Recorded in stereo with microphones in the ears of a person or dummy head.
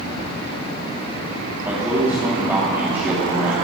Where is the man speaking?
20° right (ahead or behind), 3 m.